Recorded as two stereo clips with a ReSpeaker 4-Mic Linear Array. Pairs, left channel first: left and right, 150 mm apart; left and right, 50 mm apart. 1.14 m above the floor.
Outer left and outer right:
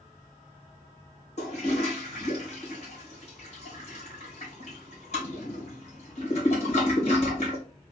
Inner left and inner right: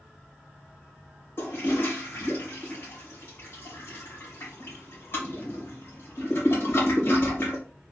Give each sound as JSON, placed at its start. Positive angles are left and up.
{"t": 1.4, "sound": "a toilet flushing", "side_deg": 50, "distance_m": 2.0}